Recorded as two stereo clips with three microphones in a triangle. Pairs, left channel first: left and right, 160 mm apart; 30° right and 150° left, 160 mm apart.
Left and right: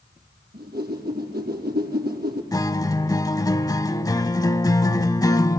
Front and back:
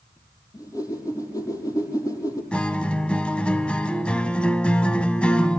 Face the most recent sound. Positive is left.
turn(degrees=45)